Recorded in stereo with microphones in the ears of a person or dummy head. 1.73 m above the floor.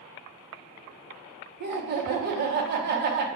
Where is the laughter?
50° right (ahead or behind), 0.8 m.